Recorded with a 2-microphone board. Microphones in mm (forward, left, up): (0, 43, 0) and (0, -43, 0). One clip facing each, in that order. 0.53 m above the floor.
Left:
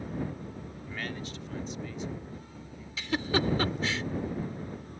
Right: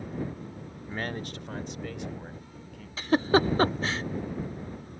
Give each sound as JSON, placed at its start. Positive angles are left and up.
{"t": 0.9, "sound": "a man speaking", "side_deg": -25}
{"t": 3.0, "sound": "a giggle", "side_deg": -40}